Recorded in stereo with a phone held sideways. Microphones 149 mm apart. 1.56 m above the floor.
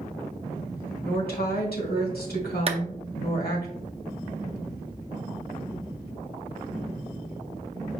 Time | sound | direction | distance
1.0 | a woman speaking | 85° left | 1.4 m
2.7 | a clap | 45° right (ahead or behind) | 0.5 m